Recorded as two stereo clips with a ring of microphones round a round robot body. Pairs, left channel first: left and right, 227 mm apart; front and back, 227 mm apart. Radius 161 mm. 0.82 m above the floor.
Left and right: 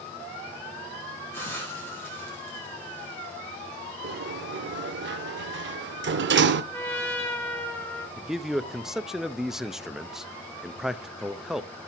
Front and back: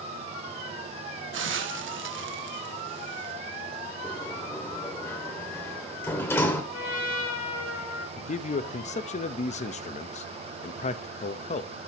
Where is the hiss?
170° left, 1.3 m.